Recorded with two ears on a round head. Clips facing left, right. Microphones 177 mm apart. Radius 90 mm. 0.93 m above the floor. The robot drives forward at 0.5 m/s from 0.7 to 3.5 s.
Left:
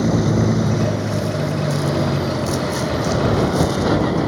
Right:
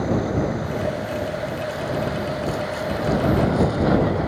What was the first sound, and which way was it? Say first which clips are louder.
A vehicle: left 4 dB; 50° left (ahead or behind).